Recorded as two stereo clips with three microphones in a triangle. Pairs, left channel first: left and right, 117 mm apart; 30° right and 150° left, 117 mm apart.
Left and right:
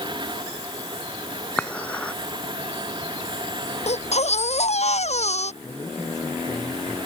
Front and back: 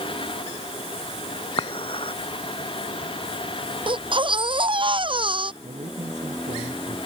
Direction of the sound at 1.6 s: 10° left.